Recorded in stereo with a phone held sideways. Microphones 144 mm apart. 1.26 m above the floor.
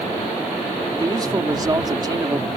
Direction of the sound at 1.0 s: 30° right (ahead or behind).